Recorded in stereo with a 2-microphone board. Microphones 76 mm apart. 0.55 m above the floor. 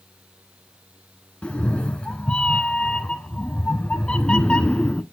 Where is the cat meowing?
15° left (ahead or behind), 0.6 m.